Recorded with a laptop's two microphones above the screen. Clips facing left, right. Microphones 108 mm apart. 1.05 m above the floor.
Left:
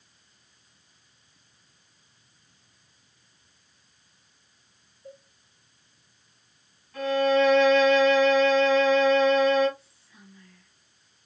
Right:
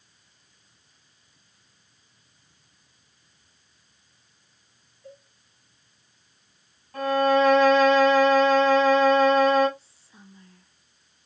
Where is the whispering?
30° right (ahead or behind), 0.6 m.